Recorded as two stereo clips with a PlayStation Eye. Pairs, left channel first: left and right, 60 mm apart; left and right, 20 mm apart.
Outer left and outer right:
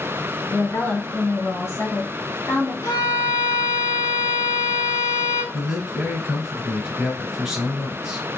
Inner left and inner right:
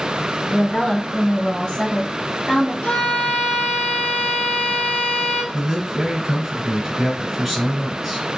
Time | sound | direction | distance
0.5 | a woman speaking | 35° left (ahead or behind) | 1.6 m
2.8 | a violin | 75° left (ahead or behind) | 1.5 m
5.5 | a man speaking | 10° right (ahead or behind) | 1.3 m